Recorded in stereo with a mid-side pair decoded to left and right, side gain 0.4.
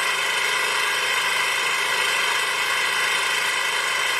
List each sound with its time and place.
0.0 s an engine running: 10° left